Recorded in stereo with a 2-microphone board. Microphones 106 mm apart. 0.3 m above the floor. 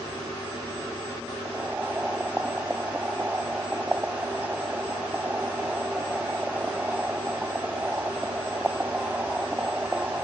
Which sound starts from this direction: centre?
Boiling, at 1.4 s.